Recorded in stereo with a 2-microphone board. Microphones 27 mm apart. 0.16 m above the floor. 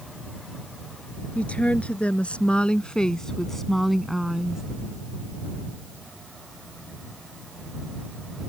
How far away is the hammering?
No hammering in this recording.